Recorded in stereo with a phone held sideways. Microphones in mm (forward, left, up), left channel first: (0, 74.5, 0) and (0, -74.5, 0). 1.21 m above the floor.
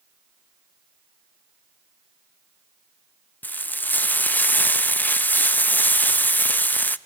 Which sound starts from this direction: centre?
Frying, at 3.4 s.